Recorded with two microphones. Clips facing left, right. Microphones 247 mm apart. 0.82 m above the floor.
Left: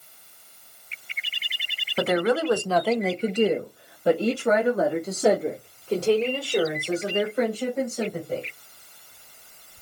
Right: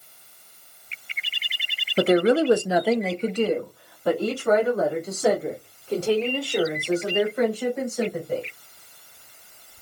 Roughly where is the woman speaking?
Right.